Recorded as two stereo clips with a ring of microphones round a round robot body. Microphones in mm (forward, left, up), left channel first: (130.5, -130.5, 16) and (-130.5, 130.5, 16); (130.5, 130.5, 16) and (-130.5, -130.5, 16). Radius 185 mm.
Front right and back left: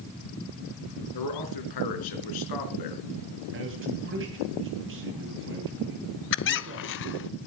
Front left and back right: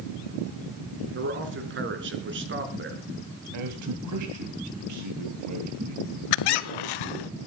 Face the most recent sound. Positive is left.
turn(degrees=15)